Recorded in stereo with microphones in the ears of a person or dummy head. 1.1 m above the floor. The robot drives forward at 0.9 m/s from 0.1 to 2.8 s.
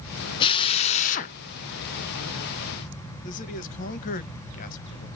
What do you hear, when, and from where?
0.4 s a drill: 25° left (ahead or behind), 1.0 m; by 1.4 s 40° left (ahead or behind), 0.7 m
3.2 s a man speaking: 45° left (ahead or behind), 1.0 m